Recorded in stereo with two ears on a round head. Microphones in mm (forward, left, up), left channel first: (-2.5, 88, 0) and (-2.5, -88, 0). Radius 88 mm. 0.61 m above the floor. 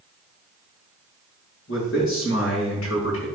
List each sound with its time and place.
1.7 s a man speaking: 70° left (ahead or behind), 5.5 m